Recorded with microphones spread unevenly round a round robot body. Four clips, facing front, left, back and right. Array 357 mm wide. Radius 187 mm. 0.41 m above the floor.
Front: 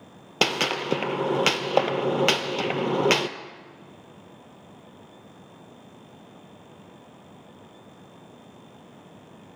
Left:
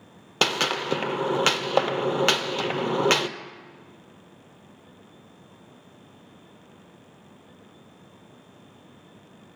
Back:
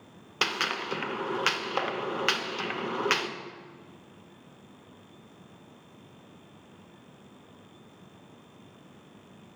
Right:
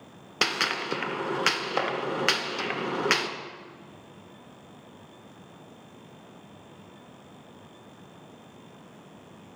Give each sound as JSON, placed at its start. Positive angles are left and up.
{"t": 0.4, "sound": "a gunshot", "azimuth_deg": 20, "distance_m": 0.6}